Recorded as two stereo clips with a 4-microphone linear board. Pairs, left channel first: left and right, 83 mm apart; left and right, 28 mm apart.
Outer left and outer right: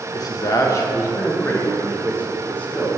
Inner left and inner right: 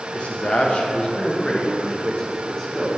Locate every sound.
0.1 s a man speaking: 50° left (ahead or behind), 1.3 m; by 2.9 s 15° left (ahead or behind), 2.5 m